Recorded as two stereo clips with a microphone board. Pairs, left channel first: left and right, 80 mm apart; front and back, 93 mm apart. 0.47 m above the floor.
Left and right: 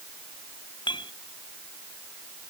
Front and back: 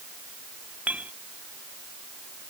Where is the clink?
105° left.